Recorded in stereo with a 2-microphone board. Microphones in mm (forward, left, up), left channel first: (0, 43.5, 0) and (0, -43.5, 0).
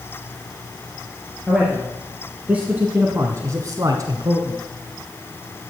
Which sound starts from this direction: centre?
A man speaking, at 1.5 s.